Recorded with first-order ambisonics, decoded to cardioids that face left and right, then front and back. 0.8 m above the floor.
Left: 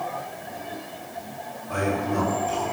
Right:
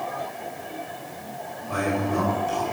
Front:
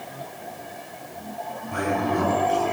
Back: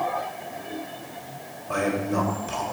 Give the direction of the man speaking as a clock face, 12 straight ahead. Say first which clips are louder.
Even, even; 6 o'clock.